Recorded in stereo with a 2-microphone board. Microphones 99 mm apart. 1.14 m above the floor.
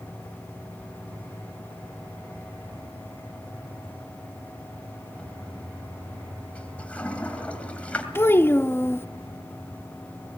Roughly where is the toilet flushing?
Centre.